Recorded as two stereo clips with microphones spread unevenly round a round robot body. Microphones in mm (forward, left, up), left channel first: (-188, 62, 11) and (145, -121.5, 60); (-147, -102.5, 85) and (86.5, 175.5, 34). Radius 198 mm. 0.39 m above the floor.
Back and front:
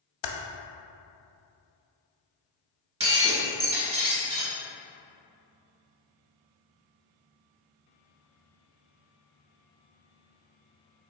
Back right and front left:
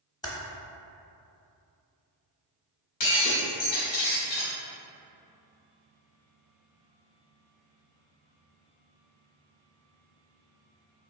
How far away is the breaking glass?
About 1.6 m.